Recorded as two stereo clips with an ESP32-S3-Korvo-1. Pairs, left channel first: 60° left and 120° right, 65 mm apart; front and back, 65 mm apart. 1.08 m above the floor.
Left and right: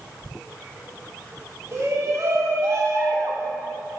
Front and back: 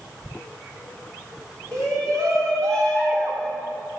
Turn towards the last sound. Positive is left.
turn(degrees=-145)